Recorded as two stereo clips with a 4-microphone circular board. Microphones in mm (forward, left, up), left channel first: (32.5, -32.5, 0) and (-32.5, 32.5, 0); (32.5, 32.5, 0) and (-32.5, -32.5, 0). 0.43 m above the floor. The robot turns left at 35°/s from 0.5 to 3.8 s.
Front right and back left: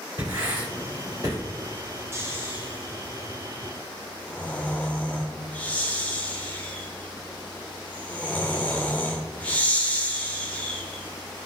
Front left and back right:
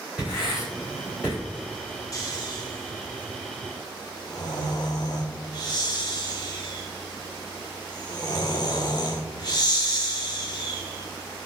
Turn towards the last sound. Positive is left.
turn(degrees=25)